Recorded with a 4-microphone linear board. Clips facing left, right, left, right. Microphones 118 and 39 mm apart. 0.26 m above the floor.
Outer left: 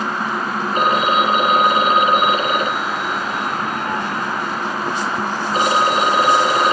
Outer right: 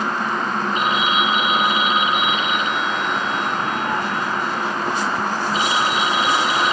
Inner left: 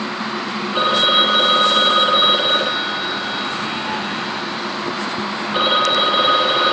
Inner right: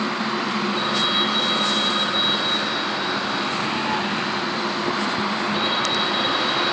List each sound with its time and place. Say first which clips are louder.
0.8 s a phone ringing: outer left 6 dB, inner left 10 dB; 45° left (ahead or behind)